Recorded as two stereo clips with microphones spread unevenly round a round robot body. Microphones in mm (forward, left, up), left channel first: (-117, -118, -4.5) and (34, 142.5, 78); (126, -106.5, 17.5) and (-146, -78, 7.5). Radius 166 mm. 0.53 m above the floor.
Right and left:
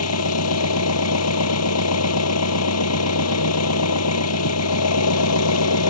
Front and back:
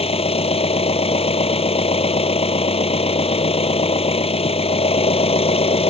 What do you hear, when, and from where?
0.0 s an engine running: 75° right